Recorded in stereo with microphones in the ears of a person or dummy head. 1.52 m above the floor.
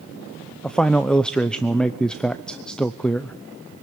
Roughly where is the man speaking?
Centre.